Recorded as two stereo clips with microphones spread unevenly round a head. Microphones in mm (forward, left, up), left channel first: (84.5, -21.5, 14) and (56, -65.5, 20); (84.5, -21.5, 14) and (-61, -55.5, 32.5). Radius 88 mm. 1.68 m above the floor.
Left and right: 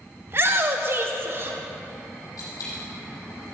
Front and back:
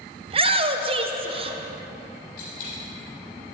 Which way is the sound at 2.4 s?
65° left.